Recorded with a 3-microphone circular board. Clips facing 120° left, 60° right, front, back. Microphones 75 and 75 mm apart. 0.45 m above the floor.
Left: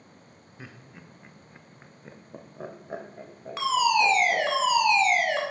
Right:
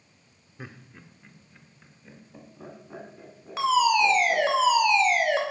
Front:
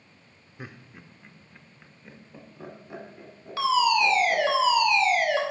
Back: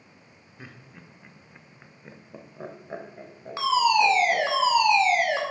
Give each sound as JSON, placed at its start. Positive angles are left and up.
{"t": 0.6, "sound": "laughter", "azimuth_deg": -20, "distance_m": 0.7}
{"t": 3.6, "sound": "a fire alarm", "azimuth_deg": -145, "distance_m": 2.0}